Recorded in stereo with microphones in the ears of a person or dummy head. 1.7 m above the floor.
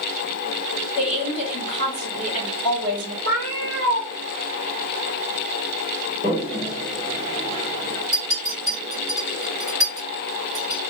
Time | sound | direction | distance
1.0 | a woman speaking | 30° left (ahead or behind) | 1.4 m
3.2 | a cat meowing | 35° left (ahead or behind) | 2 m
6.2 | a toilet flushing | 30° left (ahead or behind) | 2 m
8.1 | a clink | 15° right (ahead or behind) | 1.3 m